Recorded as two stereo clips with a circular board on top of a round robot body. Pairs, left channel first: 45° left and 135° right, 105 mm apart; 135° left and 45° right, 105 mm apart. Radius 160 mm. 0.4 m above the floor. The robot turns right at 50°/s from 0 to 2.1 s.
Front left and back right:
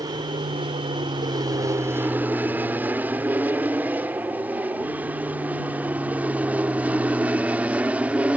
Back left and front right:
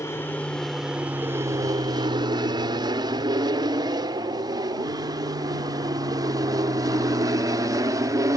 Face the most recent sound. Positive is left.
turn(degrees=-65)